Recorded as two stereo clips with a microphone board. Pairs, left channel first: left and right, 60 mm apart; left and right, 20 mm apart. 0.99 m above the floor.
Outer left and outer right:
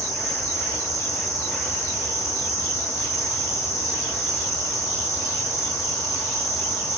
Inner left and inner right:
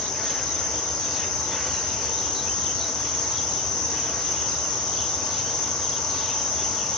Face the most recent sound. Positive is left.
turn(degrees=65)  # may be behind; listen again after turning